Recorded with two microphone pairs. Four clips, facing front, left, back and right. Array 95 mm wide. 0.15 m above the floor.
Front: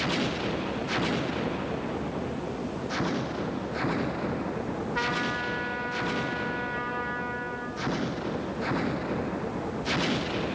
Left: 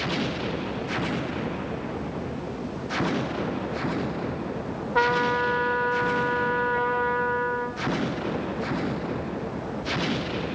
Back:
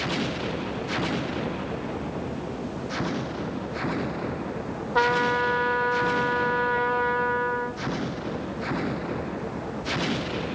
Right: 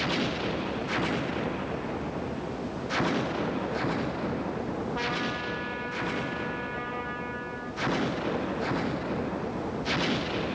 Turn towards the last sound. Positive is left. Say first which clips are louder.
# left 9 dB, back 10 dB
turn(degrees=150)